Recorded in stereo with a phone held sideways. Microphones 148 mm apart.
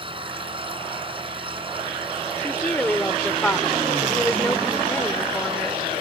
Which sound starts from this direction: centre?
A woman speaking, at 2.4 s.